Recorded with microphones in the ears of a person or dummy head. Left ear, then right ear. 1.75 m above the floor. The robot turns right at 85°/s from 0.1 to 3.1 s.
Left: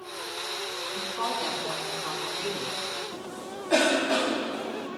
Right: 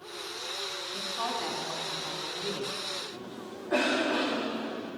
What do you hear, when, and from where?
0.9 s a woman speaking: 25° right, 4.5 m; by 2.8 s 130° left, 4.5 m
3.1 s a cough: 80° left, 3.5 m